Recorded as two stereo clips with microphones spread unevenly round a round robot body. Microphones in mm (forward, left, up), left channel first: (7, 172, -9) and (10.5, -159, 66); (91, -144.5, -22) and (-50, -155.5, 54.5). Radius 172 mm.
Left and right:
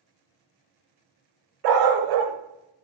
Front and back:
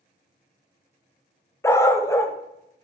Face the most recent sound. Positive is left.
turn(degrees=-60)